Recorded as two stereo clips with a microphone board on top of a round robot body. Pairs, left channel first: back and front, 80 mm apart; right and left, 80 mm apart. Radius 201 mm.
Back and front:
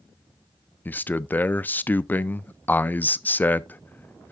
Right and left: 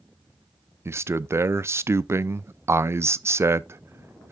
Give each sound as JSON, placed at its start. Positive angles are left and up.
{"t": 0.8, "sound": "a man speaking", "azimuth_deg": 125, "distance_m": 0.6}